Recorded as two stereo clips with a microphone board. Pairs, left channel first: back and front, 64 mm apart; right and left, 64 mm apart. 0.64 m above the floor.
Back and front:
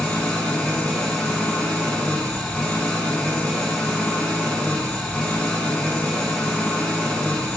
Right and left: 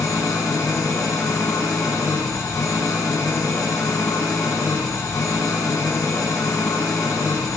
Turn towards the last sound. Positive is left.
turn(degrees=-100)